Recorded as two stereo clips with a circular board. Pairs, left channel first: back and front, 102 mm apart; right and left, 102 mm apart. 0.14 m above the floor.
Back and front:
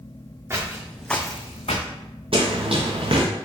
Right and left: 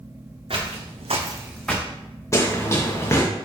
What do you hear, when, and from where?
0.5 s footsteps: 65° left, 1.3 m; by 1.9 s 165° right, 1.0 m
2.3 s running footsteps: 30° right, 0.9 m